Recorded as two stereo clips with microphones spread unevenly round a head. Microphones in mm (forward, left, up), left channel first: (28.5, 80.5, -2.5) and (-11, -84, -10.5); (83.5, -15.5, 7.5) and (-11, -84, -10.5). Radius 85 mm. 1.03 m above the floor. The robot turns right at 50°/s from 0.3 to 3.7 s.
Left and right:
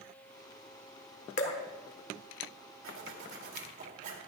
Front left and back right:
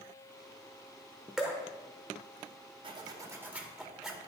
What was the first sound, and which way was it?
Dripping, 120° left.